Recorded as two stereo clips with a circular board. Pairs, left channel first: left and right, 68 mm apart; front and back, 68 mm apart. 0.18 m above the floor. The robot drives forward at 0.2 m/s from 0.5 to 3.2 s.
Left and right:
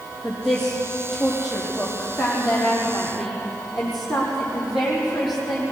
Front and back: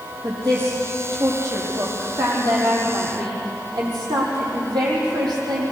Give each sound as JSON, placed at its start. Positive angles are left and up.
{"t": 0.2, "sound": "a woman speaking", "azimuth_deg": 180, "distance_m": 7.0}